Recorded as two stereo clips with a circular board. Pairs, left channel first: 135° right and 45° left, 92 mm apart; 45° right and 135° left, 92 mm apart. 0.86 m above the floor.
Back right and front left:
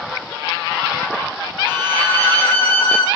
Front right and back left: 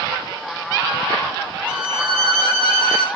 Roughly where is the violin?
Behind left.